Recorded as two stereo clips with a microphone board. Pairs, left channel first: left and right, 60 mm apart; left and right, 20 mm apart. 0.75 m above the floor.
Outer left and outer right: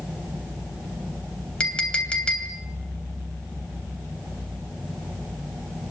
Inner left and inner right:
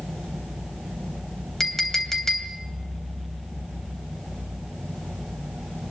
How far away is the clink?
About 2.5 m.